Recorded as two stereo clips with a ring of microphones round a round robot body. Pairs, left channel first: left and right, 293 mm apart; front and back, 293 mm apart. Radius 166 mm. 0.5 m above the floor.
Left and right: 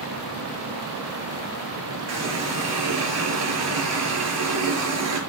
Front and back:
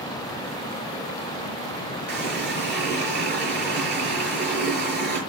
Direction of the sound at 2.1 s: 125° right.